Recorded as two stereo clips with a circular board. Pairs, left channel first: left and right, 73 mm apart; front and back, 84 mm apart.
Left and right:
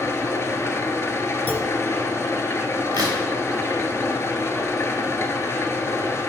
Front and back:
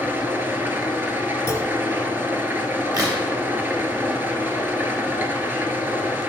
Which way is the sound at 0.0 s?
125° left.